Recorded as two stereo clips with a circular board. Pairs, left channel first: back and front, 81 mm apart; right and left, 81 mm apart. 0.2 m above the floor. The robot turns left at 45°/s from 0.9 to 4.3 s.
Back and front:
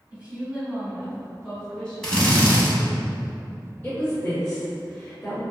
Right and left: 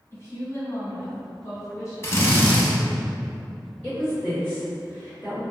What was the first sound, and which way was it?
A woman speaking, 65° right.